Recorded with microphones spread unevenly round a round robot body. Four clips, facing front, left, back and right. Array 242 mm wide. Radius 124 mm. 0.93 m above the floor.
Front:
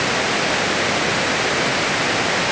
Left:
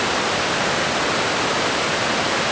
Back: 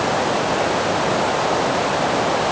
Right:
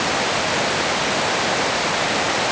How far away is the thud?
I don't hear a thud.